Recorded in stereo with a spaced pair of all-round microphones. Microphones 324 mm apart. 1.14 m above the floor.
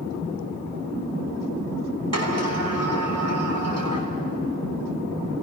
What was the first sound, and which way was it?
A sliding door, 50° right (ahead or behind).